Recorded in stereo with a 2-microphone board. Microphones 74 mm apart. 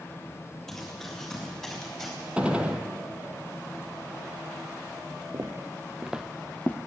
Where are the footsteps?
45° right (ahead or behind), 1.0 m; by 6.8 s 25° left (ahead or behind), 0.8 m.